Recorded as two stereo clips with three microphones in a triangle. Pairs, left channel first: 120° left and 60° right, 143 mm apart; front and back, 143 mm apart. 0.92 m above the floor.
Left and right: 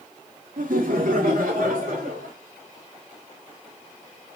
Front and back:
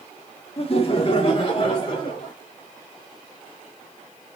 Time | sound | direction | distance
0.6 | laughter | 45° right | 1.5 m